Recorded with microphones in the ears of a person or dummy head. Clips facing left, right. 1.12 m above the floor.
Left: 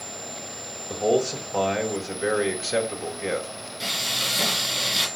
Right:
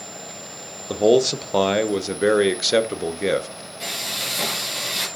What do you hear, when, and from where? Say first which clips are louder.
0.9 s a man speaking: right 6 dB; 55° right (ahead or behind), 0.8 m
3.8 s frying: right 1 dB; 5° left (ahead or behind), 2.5 m